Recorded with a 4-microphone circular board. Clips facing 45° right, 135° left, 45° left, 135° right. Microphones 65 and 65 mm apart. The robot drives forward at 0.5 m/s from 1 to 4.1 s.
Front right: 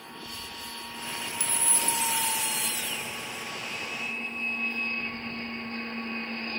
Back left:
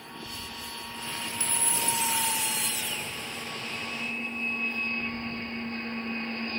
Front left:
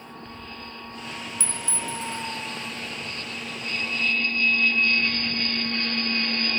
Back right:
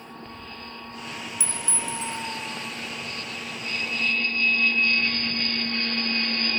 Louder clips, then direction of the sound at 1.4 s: Even, even; 160° left.